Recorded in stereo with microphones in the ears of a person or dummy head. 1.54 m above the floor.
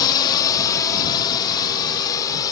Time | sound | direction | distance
0.0 | a drone | 20° left (ahead or behind) | ?